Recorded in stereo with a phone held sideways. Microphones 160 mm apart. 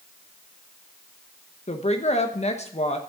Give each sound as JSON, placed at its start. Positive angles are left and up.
{"t": 1.7, "sound": "a woman speaking", "side_deg": 45, "distance_m": 1.0}